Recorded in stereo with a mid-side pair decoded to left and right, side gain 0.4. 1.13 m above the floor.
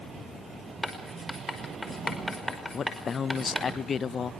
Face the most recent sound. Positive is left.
turn(degrees=50)